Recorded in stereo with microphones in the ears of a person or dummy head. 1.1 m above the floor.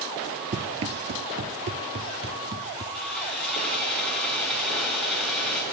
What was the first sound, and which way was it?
Running footsteps, 30° right (ahead or behind).